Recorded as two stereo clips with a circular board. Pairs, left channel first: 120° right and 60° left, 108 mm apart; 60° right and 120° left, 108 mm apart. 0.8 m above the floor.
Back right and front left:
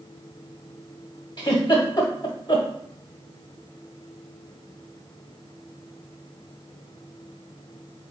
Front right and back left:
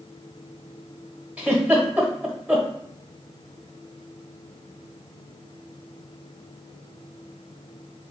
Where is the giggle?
165° right, 1.1 m.